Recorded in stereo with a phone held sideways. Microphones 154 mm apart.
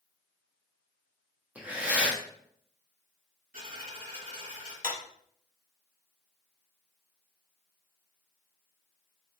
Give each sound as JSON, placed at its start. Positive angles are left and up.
{"t": 1.6, "sound": "breathing", "side_deg": -10, "distance_m": 0.7}
{"t": 3.5, "sound": "a dropped coin", "side_deg": -70, "distance_m": 2.0}
{"t": 4.8, "sound": "a clap", "side_deg": -65, "distance_m": 1.0}